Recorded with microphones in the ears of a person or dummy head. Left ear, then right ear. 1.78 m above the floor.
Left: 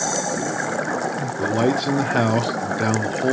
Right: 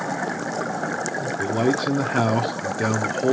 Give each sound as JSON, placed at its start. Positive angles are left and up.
{"t": 1.4, "sound": "a man speaking", "side_deg": 5, "distance_m": 0.7}